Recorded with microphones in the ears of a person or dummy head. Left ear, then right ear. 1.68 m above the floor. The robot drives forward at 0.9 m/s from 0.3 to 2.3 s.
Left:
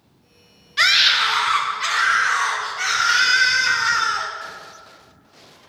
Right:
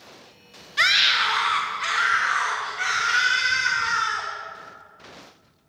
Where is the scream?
Centre (ahead or behind), 1.1 m.